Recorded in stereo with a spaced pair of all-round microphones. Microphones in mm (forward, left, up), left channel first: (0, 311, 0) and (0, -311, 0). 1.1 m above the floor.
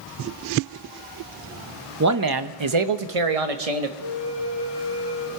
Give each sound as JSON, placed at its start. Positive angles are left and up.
{"t": 2.0, "sound": "a man speaking", "side_deg": -25, "distance_m": 0.8}
{"t": 4.0, "sound": "a flute", "side_deg": -35, "distance_m": 1.0}